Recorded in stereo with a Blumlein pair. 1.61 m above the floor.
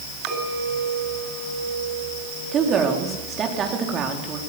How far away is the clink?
About 6.5 m.